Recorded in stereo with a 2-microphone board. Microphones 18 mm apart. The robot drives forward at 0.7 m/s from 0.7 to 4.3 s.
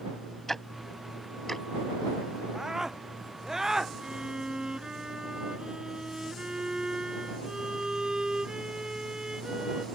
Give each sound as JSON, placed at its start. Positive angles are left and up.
{"t": 0.5, "sound": "ticking", "side_deg": 15}
{"t": 2.5, "sound": "a scream", "side_deg": -35}
{"t": 4.0, "sound": "a violin", "side_deg": -40}